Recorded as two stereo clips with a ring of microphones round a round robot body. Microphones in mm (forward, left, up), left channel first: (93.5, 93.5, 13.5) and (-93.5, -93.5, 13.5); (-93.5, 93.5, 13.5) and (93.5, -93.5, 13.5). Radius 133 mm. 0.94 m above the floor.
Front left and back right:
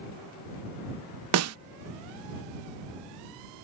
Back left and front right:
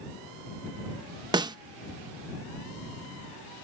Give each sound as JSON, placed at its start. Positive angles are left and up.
{"t": 1.3, "sound": "a snare drum", "azimuth_deg": -120}